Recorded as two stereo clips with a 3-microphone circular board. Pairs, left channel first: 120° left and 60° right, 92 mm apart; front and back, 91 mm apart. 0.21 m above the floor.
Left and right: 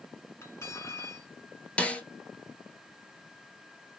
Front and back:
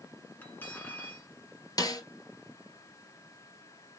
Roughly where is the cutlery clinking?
Ahead left.